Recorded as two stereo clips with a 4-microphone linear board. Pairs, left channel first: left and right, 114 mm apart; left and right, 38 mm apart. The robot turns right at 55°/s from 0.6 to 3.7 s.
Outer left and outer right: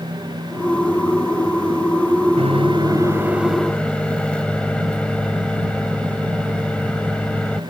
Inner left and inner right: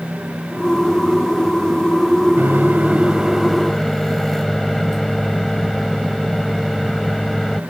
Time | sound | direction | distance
2.4 | a microwave | 65° right | ?